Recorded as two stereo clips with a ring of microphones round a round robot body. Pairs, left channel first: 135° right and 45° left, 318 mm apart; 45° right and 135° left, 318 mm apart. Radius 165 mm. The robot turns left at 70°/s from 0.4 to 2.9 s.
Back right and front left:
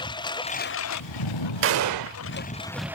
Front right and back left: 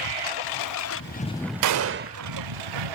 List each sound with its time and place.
0.0 s a lawn mower: 60° right; by 3.0 s 130° left
1.6 s a gunshot: 100° left; by 2.2 s 60° left